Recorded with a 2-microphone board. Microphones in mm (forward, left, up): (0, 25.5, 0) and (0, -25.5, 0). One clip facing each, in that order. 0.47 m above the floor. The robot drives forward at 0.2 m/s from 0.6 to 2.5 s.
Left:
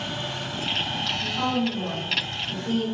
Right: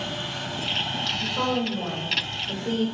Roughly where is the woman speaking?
Right.